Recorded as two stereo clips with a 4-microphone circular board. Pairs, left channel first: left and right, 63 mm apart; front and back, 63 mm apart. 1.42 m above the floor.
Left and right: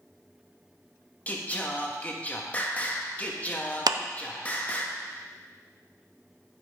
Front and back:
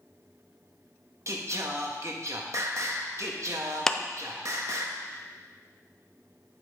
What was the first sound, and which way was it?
Singing, 155° left.